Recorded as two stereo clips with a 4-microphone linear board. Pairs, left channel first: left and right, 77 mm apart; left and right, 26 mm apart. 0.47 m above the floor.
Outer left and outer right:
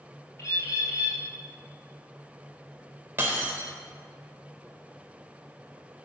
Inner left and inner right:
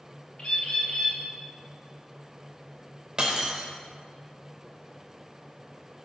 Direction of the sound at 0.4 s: 40° left (ahead or behind).